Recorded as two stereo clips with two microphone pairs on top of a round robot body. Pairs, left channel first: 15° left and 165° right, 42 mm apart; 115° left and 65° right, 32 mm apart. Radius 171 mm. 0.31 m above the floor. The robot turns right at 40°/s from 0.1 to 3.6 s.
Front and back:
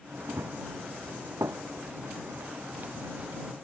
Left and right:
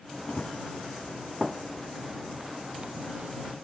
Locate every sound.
0.3 s running footsteps: 170° left; by 3.5 s 100° right